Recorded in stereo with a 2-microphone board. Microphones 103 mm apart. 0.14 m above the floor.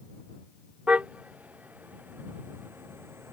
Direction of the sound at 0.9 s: 10° right (ahead or behind).